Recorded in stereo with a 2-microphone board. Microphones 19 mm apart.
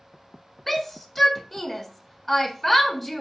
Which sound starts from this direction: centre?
A shout, at 0.7 s.